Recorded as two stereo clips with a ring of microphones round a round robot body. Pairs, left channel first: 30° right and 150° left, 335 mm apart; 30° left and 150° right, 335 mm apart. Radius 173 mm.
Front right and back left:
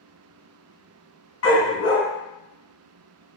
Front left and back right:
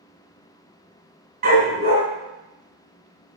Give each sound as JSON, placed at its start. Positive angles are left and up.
{"t": 1.4, "sound": "a dog barking", "azimuth_deg": -85, "distance_m": 3.0}